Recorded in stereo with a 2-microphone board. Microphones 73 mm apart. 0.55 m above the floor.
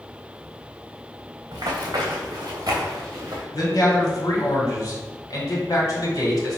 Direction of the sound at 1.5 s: 65° right (ahead or behind).